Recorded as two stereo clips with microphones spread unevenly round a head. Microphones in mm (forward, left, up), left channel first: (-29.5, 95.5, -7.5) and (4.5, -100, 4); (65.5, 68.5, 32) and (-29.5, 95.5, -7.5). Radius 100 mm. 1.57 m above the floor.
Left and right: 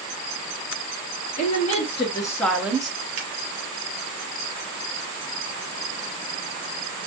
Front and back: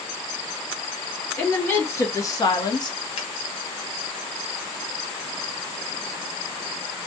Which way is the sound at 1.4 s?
45° left.